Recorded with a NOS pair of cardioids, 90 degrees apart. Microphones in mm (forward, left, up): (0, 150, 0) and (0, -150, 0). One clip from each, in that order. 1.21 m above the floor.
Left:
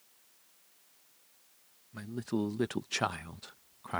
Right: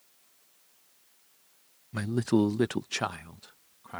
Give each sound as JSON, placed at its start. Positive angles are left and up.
{"t": 1.9, "sound": "a man speaking", "azimuth_deg": -55}